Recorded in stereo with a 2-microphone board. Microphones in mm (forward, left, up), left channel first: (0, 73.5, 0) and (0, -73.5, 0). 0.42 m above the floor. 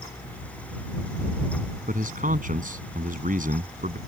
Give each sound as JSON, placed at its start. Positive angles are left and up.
{"t": 1.9, "sound": "a man speaking", "side_deg": -65}